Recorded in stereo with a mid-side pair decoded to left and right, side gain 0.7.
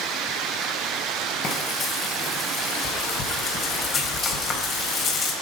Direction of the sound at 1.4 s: 40° left.